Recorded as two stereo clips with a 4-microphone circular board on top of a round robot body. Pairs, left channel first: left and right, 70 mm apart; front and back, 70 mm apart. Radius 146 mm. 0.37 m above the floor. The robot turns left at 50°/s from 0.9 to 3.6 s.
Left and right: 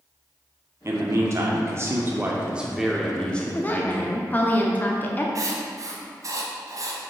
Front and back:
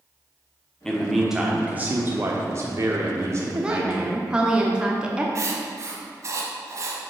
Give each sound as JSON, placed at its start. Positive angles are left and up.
{"t": 0.8, "sound": "a man speaking", "azimuth_deg": -75, "distance_m": 1.0}
{"t": 3.5, "sound": "a woman speaking", "azimuth_deg": 120, "distance_m": 1.1}
{"t": 5.3, "sound": "writing", "azimuth_deg": -130, "distance_m": 1.0}